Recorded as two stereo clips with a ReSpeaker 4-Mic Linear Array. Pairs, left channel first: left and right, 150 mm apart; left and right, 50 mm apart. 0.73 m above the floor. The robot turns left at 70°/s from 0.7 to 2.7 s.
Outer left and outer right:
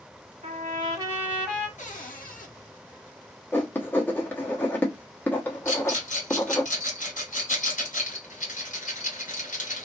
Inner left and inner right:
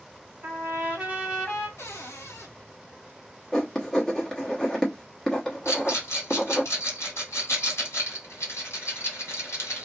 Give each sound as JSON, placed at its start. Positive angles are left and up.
{"t": 0.4, "sound": "a trumpet", "azimuth_deg": -125, "distance_m": 1.7}
{"t": 1.8, "sound": "a cupboard door", "azimuth_deg": 120, "distance_m": 1.0}
{"t": 3.5, "sound": "writing", "side_deg": 15, "distance_m": 1.0}
{"t": 5.7, "sound": "a rattle", "side_deg": 65, "distance_m": 1.9}